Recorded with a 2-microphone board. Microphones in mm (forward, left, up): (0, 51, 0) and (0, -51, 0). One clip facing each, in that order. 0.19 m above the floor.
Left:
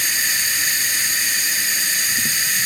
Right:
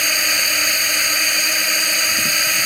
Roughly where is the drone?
Right.